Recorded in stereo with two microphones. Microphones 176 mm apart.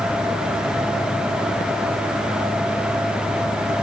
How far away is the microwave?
I don't hear a microwave.